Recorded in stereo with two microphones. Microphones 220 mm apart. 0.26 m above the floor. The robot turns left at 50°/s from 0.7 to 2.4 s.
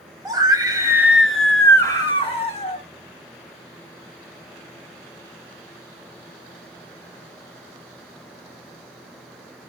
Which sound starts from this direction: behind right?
A scream, at 0.2 s.